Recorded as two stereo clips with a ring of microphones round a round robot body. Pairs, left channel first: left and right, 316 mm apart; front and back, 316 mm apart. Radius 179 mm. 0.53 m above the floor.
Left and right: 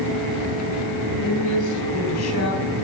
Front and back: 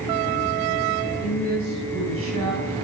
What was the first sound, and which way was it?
A woman speaking, 110° left.